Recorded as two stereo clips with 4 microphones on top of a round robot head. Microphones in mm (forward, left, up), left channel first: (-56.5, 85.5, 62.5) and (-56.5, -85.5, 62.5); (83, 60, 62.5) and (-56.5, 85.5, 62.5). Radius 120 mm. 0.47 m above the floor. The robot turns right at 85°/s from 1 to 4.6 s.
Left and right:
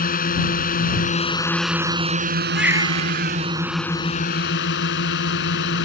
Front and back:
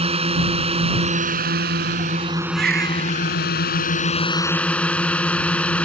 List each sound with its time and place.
0.0 s a drone: 125° left; by 5.9 s 70° left
2.5 s a baby crying: straight behind; by 3.6 s 95° right